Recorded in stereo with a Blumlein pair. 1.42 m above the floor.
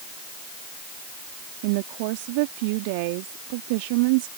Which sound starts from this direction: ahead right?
A woman speaking, at 1.6 s.